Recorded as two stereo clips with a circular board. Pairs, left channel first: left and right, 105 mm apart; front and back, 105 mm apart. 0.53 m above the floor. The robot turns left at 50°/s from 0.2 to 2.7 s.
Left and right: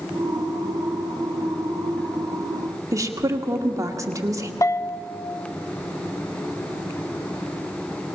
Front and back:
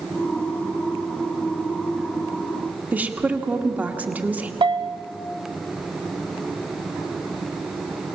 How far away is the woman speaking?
About 1.4 m.